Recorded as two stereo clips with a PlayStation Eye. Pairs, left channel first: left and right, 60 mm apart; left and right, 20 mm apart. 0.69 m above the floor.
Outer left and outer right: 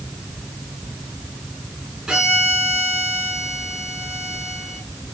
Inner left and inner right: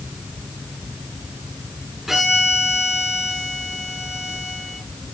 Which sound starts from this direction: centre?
A violin, at 2.1 s.